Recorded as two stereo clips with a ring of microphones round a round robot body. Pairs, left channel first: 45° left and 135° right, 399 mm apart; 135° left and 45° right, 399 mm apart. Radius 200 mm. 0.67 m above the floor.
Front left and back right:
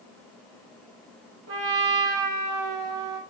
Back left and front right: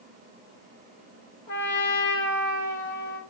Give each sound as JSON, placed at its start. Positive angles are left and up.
{"t": 1.5, "sound": "a trumpet", "azimuth_deg": 175, "distance_m": 1.9}